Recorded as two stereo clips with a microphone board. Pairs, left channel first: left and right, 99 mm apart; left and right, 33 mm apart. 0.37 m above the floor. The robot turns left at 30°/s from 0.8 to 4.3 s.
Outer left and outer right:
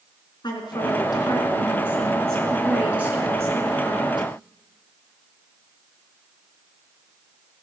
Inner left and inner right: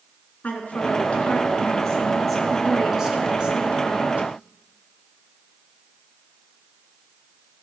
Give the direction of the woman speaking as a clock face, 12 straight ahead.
10 o'clock.